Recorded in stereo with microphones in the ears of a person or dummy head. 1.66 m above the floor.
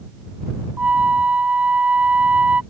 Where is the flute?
5° right (ahead or behind).